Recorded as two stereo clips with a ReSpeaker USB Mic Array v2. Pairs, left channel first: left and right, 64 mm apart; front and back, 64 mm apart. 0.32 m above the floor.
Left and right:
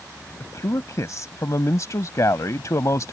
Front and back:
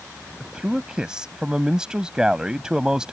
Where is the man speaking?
105° left.